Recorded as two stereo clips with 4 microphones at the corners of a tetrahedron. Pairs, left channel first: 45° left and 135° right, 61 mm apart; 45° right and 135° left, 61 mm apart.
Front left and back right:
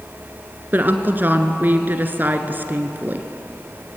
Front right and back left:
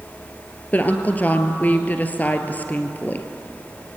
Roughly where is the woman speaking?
Right.